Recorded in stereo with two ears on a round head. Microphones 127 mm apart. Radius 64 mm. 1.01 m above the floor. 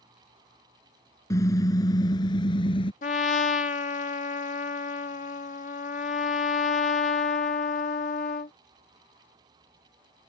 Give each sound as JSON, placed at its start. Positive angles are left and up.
{"t": 1.3, "sound": "a car horn", "side_deg": 25}
{"t": 3.0, "sound": "a trumpet", "side_deg": 55}